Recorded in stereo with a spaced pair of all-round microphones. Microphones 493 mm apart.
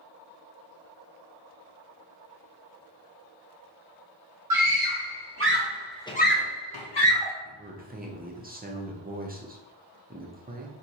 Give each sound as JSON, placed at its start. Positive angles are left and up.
{"t": 4.5, "sound": "a scream", "side_deg": -50, "distance_m": 1.5}
{"t": 7.5, "sound": "a man speaking", "side_deg": -20, "distance_m": 0.5}